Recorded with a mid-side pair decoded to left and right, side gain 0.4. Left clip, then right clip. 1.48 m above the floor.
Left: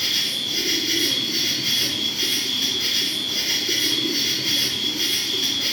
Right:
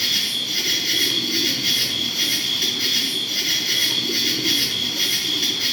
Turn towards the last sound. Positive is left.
turn(degrees=-50)